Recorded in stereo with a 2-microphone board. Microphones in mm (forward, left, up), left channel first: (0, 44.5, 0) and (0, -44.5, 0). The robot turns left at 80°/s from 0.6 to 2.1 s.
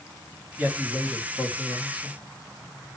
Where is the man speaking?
155° right, 2.5 m; by 2.2 s 85° left, 2.5 m.